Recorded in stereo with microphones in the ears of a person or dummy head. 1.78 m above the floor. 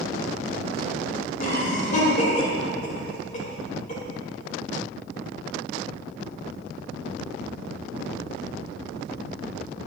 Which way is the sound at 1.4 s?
45° left (ahead or behind).